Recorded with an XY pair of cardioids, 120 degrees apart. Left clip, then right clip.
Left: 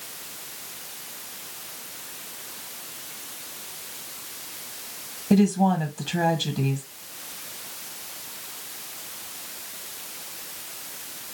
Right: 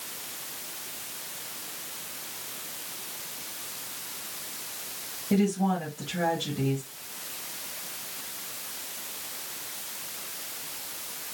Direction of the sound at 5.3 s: 70° left.